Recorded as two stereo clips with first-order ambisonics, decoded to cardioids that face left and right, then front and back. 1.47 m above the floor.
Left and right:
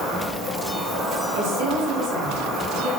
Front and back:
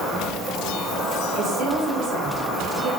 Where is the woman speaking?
115° right, 1.6 m.